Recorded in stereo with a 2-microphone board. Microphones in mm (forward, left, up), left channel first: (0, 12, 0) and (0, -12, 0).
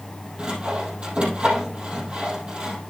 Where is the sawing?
40° right (ahead or behind), 3.5 m.